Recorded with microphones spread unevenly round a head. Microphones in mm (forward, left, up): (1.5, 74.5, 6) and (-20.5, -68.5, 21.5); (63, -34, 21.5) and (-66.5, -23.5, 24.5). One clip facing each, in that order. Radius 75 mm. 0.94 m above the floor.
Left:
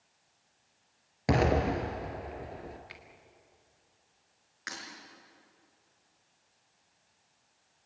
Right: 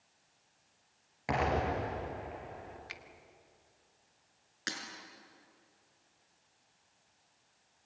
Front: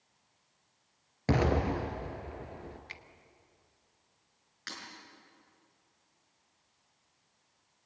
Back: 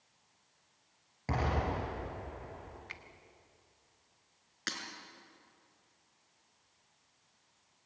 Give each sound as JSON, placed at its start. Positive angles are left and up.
{"t": 1.3, "sound": "an explosion", "azimuth_deg": 30, "distance_m": 3.5}
{"t": 2.9, "sound": "a finger snap", "azimuth_deg": -60, "distance_m": 1.5}
{"t": 4.7, "sound": "breaking glass", "azimuth_deg": -150, "distance_m": 5.5}